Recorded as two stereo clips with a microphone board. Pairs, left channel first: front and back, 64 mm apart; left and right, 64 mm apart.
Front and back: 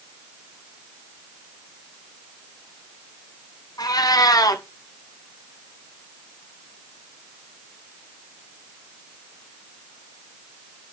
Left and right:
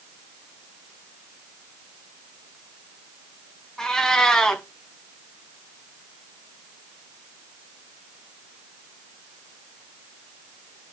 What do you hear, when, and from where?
3.8 s a cat meowing: 10° left, 3.5 m